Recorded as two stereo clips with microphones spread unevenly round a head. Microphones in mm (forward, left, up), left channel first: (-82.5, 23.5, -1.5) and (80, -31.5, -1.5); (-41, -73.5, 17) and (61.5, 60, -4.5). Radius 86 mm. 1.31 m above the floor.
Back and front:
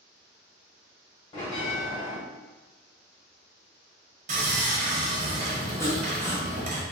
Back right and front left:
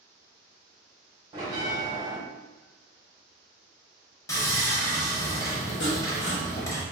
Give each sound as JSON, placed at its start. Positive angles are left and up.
{"t": 1.3, "sound": "a bell", "azimuth_deg": 115, "distance_m": 1.6}
{"t": 4.3, "sound": "sawing", "azimuth_deg": -60, "distance_m": 1.0}
{"t": 5.8, "sound": "sawing", "azimuth_deg": -125, "distance_m": 1.4}